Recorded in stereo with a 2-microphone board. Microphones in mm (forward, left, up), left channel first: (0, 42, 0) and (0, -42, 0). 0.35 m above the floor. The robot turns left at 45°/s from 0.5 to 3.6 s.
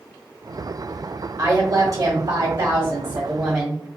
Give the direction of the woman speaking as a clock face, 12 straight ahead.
2 o'clock.